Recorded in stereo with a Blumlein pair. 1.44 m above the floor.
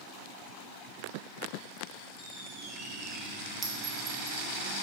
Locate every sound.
2.2 s a squeak: 5° right, 1.4 m
3.6 s a clink: 20° right, 1.0 m